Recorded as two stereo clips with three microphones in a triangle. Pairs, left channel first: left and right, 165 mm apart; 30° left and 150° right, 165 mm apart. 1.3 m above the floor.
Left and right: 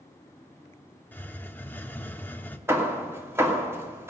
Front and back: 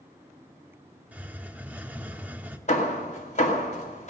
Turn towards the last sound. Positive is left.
turn(degrees=-15)